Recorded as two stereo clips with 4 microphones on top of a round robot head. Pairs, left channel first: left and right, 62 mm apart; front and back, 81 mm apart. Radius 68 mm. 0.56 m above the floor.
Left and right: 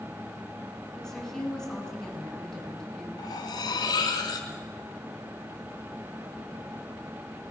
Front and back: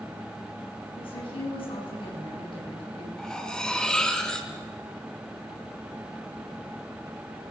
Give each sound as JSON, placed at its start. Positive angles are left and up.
{"t": 1.0, "sound": "a woman speaking", "azimuth_deg": 10, "distance_m": 8.0}
{"t": 3.2, "sound": "cutlery clinking", "azimuth_deg": 85, "distance_m": 3.5}